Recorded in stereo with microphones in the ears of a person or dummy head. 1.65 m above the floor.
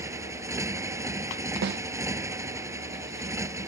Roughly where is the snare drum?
Right.